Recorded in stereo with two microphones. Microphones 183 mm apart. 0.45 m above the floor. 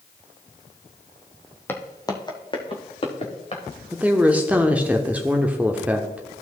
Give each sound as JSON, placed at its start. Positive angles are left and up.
{"t": 1.7, "sound": "footsteps", "side_deg": 10, "distance_m": 1.2}
{"t": 3.9, "sound": "a woman speaking", "side_deg": -10, "distance_m": 0.8}